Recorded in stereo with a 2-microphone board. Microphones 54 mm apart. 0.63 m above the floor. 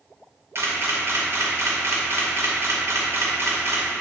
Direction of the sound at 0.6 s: 55° right (ahead or behind).